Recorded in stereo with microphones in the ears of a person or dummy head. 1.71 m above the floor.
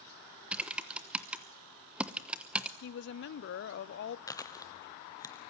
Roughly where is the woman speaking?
Left.